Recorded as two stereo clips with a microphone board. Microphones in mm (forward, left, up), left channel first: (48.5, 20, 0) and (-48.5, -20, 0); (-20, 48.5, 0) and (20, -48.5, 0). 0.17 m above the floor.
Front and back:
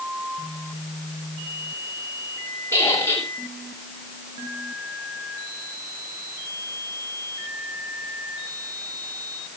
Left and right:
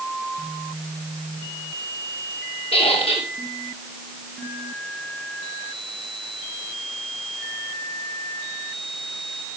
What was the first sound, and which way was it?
A squeak, 90° left.